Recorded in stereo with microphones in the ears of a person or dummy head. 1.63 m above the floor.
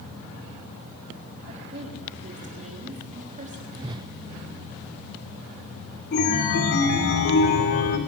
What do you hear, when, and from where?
1.5 s a woman speaking: 40° right (ahead or behind), 3.5 m
3.7 s a whoosh: 20° right (ahead or behind), 0.6 m
6.1 s a chime: 50° left (ahead or behind), 2.5 m